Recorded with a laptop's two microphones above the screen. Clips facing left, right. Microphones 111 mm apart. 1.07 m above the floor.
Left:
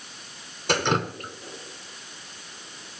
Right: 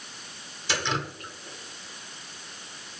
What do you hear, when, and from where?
0.7 s dripping: 50° left (ahead or behind), 0.9 m